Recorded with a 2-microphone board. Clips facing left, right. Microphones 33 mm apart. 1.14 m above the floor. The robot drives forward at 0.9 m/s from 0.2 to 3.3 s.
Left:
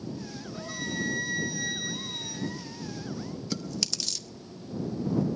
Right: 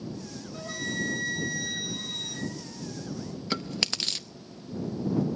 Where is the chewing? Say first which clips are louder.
Right 5 dB; 40° right (ahead or behind), 0.6 m.